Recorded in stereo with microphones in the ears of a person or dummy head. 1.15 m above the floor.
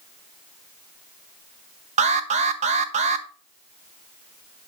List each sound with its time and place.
2.0 s an alarm: 40° right (ahead or behind), 0.8 m